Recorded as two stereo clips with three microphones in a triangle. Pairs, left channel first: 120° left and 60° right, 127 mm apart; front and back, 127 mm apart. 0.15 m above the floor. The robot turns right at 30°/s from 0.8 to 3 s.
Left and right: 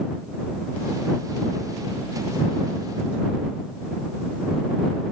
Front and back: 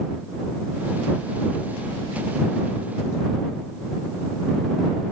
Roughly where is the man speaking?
No man speaking in this recording.